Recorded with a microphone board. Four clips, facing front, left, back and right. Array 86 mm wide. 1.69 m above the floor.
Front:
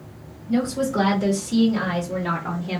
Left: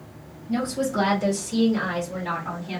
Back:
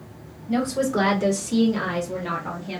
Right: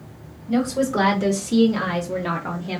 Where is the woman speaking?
125° right, 1.9 m; by 2.8 s 50° right, 0.9 m.